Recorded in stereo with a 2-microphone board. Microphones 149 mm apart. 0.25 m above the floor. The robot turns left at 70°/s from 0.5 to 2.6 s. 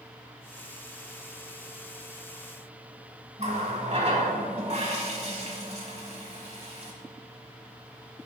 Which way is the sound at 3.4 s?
45° right (ahead or behind).